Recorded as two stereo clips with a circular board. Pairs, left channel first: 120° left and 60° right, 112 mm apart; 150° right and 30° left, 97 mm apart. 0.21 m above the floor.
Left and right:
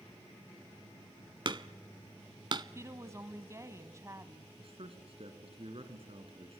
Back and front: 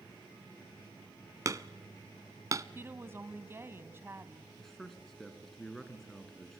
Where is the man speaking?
65° right, 3 m.